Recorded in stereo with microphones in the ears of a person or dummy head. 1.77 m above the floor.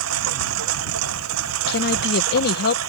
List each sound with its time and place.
0.0 s a lawn mower: 85° right
1.7 s a woman speaking: 55° left (ahead or behind)